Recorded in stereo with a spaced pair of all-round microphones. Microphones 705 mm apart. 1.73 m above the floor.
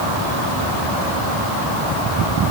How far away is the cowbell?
No cowbell in this recording.